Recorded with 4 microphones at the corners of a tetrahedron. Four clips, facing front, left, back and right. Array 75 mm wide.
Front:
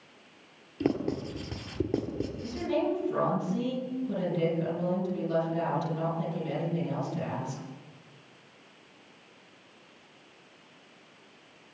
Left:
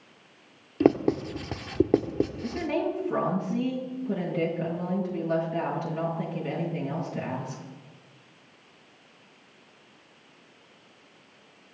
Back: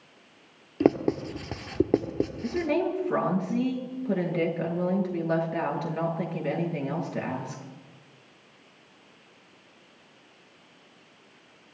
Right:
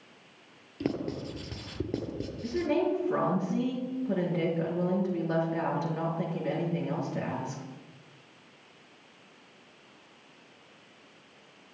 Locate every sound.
0.8 s writing: 130° left, 1.6 m
2.4 s a woman speaking: 165° right, 7.5 m